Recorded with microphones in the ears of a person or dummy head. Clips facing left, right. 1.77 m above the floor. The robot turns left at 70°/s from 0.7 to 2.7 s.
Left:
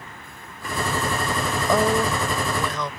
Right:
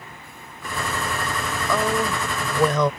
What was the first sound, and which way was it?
A woman speaking, 20° left.